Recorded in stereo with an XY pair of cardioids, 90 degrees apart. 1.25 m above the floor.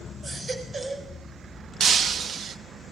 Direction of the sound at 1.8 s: 60° right.